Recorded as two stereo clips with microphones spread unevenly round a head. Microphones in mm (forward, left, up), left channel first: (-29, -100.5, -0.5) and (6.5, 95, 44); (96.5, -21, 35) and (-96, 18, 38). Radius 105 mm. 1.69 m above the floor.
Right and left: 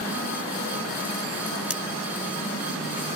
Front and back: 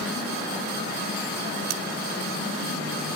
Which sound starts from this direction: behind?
Cutlery clinking, at 1.7 s.